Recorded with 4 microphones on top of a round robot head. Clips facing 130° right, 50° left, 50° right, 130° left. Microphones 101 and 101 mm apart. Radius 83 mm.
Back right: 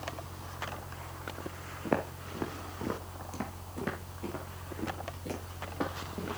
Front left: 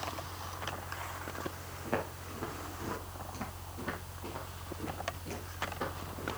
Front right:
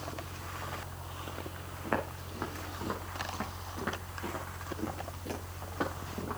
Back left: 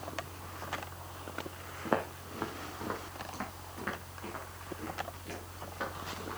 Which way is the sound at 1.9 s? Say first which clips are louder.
Back right 4 dB, back left 2 dB; 155° right.